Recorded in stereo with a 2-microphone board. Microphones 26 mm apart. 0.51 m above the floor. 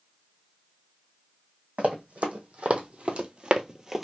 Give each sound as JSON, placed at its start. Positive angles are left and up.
{"t": 1.8, "sound": "running footsteps", "side_deg": -65, "distance_m": 1.3}